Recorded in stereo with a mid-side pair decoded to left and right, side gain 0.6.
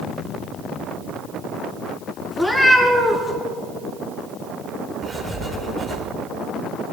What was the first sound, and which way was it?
A cat meowing, 5° left.